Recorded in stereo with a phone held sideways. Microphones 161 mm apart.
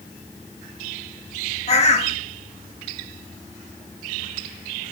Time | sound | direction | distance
1.7 | a bird | 40° left (ahead or behind) | 0.7 m